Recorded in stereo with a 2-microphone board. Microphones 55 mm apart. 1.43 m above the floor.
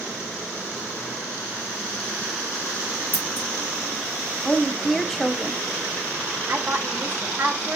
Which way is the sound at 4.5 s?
5° left (ahead or behind).